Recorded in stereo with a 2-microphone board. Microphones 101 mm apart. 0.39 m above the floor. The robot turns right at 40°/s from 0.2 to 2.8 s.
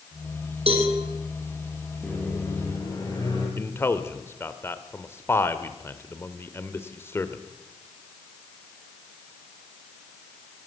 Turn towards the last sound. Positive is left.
turn(degrees=25)  # may be behind; listen again after turning